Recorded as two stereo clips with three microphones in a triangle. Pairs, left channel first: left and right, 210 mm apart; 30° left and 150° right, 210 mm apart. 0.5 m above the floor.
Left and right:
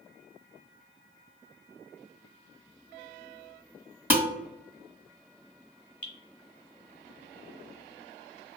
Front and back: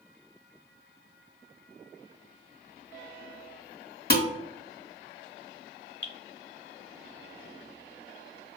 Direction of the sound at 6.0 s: 145° left.